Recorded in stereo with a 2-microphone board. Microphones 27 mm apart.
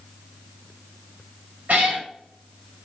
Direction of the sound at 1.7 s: 60° right (ahead or behind).